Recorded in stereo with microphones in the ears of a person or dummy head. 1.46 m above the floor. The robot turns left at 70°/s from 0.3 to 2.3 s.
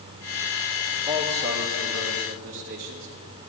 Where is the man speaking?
30° right, 0.7 m; by 3.1 s 115° right, 0.7 m.